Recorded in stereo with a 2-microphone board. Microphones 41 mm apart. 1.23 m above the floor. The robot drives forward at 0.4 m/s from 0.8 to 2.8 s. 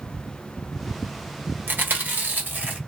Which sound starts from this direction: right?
Chewing, at 1.7 s.